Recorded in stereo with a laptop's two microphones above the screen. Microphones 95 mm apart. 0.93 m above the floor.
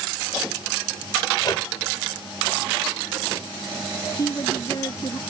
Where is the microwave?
45° left (ahead or behind).